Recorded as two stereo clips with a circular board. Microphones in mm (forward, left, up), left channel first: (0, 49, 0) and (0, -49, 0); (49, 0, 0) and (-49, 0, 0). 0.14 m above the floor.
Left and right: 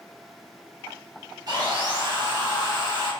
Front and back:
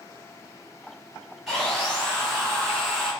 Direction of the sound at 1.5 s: 85° right.